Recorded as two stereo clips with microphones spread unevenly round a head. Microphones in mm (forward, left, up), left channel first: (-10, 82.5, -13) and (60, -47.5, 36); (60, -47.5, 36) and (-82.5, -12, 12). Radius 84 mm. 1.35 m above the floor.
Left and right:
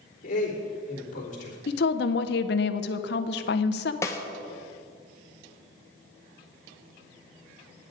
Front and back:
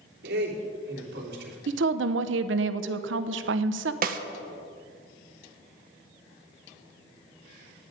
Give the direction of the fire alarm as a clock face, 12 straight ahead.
I don't hear a fire alarm.